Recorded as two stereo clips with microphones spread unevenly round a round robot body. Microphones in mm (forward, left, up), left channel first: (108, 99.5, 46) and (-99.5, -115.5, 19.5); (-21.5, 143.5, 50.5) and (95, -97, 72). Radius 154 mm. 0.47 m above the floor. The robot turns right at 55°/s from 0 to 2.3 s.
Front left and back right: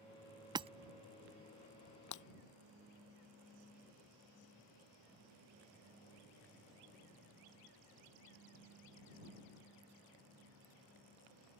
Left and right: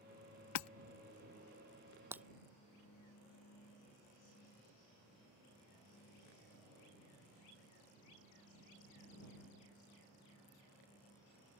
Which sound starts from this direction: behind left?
Hammering, at 0.6 s.